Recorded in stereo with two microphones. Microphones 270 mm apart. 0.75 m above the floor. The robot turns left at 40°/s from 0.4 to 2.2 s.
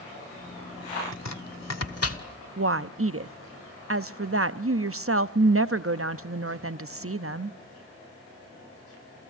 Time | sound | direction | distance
1.1 | chopping | 80° left | 1.3 m
2.6 | a woman speaking | 55° right (ahead or behind) | 0.6 m